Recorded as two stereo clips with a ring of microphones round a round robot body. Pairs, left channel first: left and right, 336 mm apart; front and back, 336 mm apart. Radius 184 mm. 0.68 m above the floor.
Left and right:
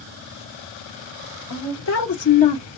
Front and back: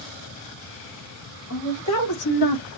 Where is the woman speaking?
55° left, 1.3 m; by 2.7 s 10° left, 1.0 m.